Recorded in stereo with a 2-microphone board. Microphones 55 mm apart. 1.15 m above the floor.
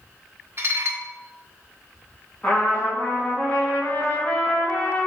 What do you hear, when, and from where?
0.6 s dishes clattering: 50° right (ahead or behind), 1.1 m
2.4 s a trumpet: 30° left (ahead or behind), 2.5 m